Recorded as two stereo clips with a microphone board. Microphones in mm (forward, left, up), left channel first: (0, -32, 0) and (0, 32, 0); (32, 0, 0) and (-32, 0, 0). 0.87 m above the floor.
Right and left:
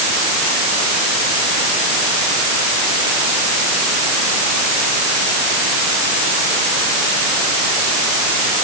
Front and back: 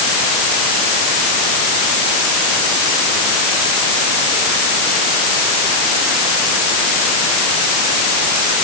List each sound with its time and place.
Only background noise.